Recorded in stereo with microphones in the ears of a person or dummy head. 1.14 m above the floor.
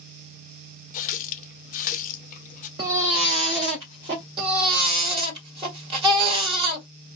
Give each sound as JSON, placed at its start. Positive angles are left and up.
{"t": 0.9, "sound": "a running tap", "side_deg": 40, "distance_m": 0.6}
{"t": 2.8, "sound": "a baby crying", "side_deg": -15, "distance_m": 0.6}
{"t": 4.4, "sound": "a baby crying", "side_deg": -35, "distance_m": 1.5}